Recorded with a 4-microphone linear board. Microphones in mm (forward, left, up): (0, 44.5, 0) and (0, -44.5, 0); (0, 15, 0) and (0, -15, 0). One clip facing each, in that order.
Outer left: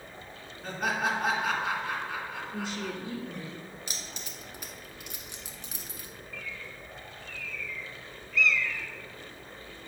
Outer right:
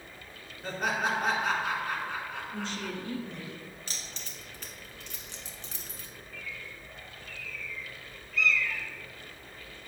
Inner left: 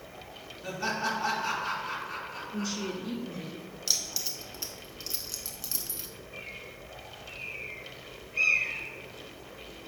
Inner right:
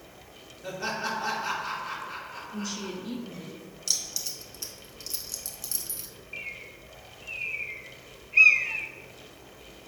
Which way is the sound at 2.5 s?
10° left (ahead or behind).